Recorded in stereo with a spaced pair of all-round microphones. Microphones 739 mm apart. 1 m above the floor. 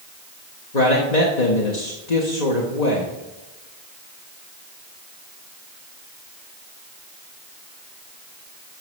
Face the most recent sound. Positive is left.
turn(degrees=65)  # may be behind; listen again after turning